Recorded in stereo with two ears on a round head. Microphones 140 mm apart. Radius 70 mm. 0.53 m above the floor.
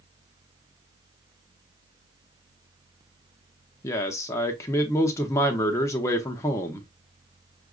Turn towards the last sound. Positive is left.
turn(degrees=20)  # may be behind; listen again after turning